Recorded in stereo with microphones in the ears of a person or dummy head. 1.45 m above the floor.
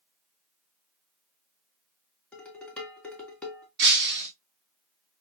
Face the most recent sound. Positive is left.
turn(degrees=-55)  # may be behind; listen again after turning